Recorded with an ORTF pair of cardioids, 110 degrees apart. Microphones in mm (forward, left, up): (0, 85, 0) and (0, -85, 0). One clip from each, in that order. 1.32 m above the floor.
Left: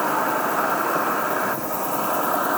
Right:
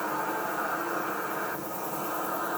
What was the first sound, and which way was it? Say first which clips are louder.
An insect: left 9 dB; 65° left.